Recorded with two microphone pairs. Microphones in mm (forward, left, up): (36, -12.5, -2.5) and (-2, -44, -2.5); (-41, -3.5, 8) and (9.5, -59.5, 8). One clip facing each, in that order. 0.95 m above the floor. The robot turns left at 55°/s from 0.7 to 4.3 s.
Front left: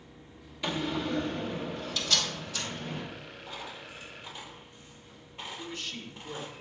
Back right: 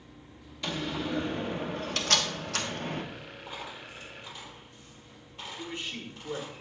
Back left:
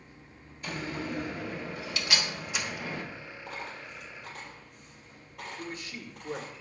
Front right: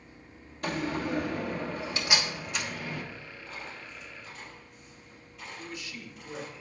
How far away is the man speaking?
About 1.1 m.